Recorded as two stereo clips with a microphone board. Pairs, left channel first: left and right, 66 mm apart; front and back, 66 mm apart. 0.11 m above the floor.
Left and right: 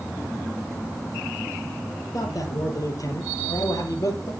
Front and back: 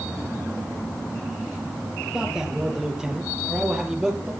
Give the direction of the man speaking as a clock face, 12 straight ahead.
9 o'clock.